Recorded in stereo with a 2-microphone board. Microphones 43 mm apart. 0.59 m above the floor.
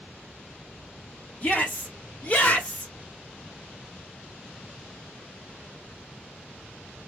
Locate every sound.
1.4 s a shout: 40° left (ahead or behind), 1.2 m